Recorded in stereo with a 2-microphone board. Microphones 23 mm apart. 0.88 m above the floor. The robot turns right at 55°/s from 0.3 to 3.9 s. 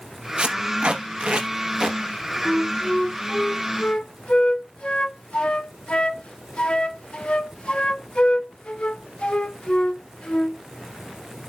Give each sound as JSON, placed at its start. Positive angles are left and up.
{"t": 0.4, "sound": "tape being pulled", "side_deg": -50, "distance_m": 1.1}
{"t": 2.5, "sound": "a flute", "side_deg": -30, "distance_m": 0.7}